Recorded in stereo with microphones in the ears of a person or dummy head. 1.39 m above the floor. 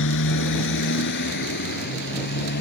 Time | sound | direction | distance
0.0 | a motorcycle | 65° left (ahead or behind) | ?